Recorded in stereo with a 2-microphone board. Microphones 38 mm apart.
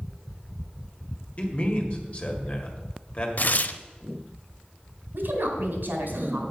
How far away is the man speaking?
About 1.8 m.